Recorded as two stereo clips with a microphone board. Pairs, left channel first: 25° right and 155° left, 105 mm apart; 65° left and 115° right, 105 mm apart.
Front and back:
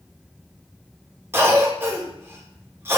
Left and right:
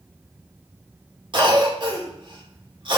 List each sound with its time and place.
1.3 s a cough: 140° right, 2 m